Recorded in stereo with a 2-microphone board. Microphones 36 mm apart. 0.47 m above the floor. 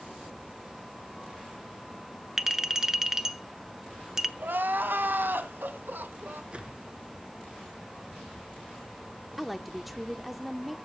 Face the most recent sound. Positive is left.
turn(degrees=-5)  # may be behind; listen again after turning